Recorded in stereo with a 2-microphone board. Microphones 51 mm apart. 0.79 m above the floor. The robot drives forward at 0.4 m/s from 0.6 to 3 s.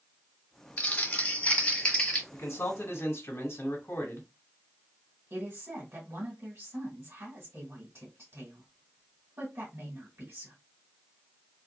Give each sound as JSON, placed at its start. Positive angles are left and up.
{"t": 0.8, "sound": "crumpling", "side_deg": 30, "distance_m": 0.8}
{"t": 2.3, "sound": "a man speaking", "side_deg": 55, "distance_m": 1.0}
{"t": 5.3, "sound": "a woman speaking", "side_deg": -50, "distance_m": 1.4}